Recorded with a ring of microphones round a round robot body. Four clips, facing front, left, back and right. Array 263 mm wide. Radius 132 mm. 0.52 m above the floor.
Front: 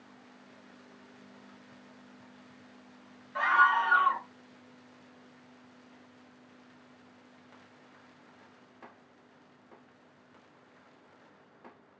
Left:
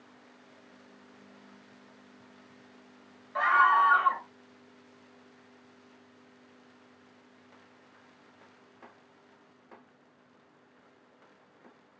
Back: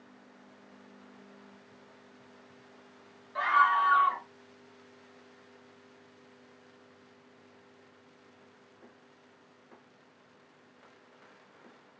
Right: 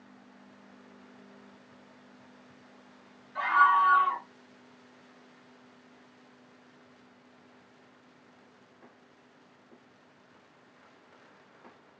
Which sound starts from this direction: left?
A scream, at 3.4 s.